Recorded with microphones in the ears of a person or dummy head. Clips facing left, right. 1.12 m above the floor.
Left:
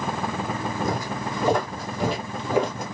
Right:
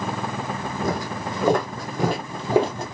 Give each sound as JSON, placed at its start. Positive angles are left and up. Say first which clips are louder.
{"t": 0.8, "sound": "footsteps", "louder": "right 4 dB", "side_deg": -50, "distance_m": 1.8}